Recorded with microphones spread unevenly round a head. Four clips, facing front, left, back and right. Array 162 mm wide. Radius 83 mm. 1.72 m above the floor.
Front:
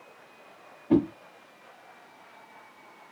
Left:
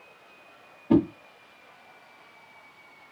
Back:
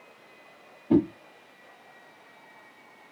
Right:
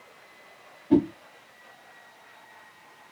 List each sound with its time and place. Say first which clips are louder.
0.9 s a whoosh: even, back 1 dB; 35° left, 0.9 m